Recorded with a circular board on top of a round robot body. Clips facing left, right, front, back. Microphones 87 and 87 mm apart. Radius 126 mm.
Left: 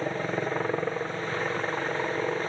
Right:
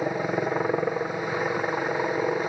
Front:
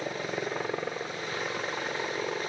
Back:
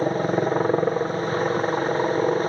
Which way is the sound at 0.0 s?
165° right.